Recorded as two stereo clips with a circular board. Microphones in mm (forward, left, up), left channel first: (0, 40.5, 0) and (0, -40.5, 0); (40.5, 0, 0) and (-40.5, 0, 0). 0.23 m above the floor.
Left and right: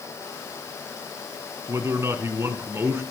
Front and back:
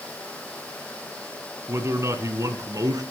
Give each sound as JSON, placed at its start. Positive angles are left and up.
{"t": 1.7, "sound": "a man speaking", "azimuth_deg": -135, "distance_m": 2.5}